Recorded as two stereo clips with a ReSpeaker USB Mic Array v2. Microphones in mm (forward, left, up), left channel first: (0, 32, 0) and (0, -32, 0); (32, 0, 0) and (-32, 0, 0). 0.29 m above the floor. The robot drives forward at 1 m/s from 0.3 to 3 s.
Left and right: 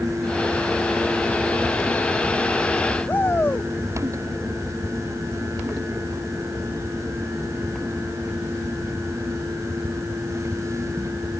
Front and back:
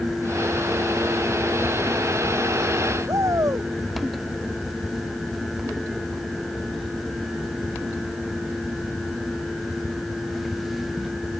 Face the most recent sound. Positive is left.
turn(degrees=150)